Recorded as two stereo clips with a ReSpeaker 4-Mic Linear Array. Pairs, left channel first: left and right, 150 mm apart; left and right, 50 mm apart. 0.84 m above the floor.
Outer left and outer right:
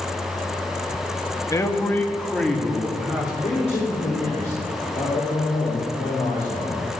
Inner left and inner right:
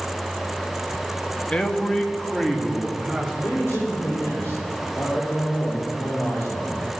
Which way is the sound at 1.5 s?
20° left (ahead or behind).